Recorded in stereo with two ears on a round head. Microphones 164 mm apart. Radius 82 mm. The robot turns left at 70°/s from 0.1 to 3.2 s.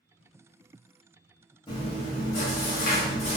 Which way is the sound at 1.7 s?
150° left.